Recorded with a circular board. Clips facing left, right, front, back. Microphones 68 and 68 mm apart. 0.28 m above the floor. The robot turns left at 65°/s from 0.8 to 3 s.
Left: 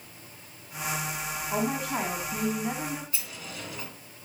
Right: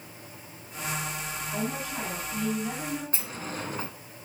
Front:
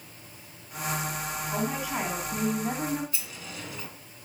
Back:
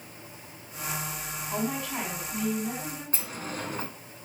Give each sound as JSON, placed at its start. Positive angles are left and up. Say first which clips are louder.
{"t": 1.5, "sound": "a woman speaking", "louder": "left 5 dB, even", "azimuth_deg": 100, "distance_m": 2.5}
{"t": 3.1, "sound": "a sliding door", "louder": "right 5 dB, back 5 dB", "azimuth_deg": -135, "distance_m": 1.7}